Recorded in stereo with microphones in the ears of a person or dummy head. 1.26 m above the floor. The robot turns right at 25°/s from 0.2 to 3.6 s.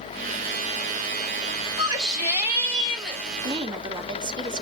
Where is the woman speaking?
30° right (ahead or behind), 2.5 m; by 4.6 s 25° right (ahead or behind), 2.5 m.